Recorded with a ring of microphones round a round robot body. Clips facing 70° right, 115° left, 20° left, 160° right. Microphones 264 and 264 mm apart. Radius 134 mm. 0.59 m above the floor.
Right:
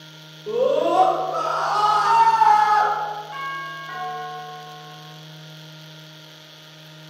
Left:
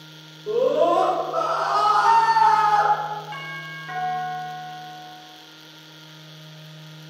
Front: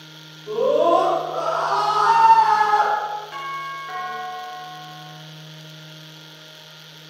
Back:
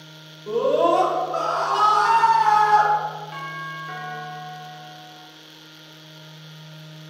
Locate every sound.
0.5 s a scream: 155° right, 1.8 m; by 2.9 s 170° right, 3 m
3.3 s a doorbell: 115° left, 1.5 m